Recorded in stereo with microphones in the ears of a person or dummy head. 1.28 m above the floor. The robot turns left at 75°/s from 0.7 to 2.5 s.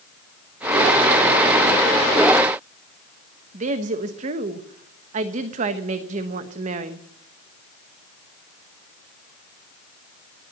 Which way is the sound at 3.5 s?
40° right (ahead or behind).